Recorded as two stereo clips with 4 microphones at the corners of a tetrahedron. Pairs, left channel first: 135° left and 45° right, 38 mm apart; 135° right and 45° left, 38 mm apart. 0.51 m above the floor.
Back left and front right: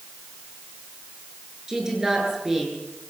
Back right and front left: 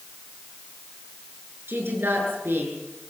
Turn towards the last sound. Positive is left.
turn(degrees=30)